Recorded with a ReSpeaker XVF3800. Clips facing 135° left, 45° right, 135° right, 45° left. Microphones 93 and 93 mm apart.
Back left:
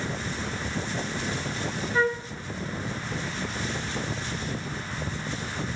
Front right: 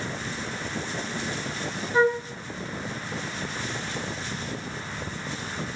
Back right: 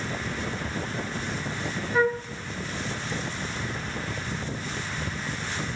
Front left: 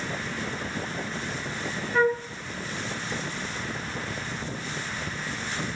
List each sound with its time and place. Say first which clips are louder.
1.9 s a flute: front right 4 dB, front left 1 dB; 70° right, 1.5 m